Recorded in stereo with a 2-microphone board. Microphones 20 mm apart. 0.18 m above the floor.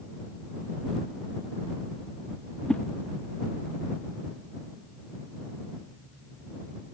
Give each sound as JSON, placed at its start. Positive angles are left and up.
{"t": 2.7, "sound": "a whoosh", "side_deg": 60}